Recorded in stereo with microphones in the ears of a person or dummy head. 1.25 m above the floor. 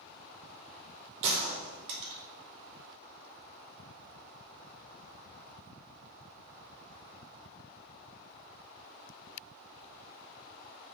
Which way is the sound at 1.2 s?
40° right (ahead or behind).